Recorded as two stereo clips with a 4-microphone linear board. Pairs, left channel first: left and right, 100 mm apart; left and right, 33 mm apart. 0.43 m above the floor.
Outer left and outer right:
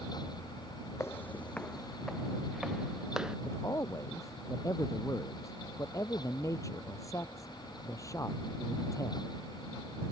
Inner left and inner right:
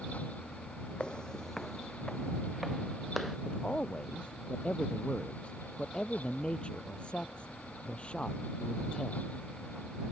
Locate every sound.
1.0 s footsteps: 30° left (ahead or behind); by 3.4 s 5° right (ahead or behind)
3.5 s a man speaking: 30° left (ahead or behind)